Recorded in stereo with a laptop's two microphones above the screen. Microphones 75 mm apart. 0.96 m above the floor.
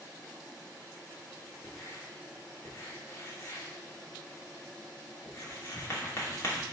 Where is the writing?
40° left (ahead or behind), 2.5 m.